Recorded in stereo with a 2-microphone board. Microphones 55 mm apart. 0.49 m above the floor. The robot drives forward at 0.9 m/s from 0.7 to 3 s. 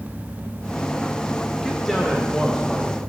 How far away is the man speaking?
About 1.5 m.